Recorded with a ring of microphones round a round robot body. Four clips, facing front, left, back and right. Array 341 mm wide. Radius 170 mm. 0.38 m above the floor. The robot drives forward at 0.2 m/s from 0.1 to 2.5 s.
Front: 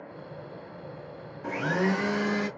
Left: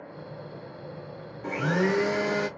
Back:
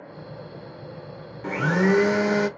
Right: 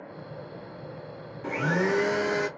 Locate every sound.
1.4 s a blender: 175° right, 0.6 m